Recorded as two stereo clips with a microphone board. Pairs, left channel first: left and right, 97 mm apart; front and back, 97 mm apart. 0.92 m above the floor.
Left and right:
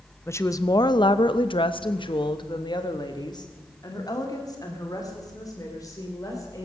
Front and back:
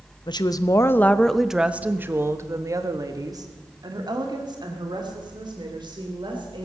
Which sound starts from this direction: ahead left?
A woman speaking, at 0.3 s.